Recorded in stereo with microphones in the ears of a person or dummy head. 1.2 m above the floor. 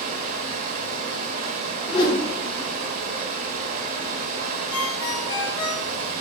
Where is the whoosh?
30° left (ahead or behind), 1.7 m.